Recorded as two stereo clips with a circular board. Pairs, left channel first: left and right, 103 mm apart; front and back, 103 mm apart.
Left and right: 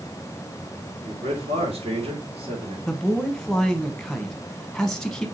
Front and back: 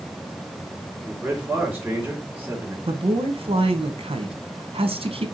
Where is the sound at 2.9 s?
175° left, 0.9 m.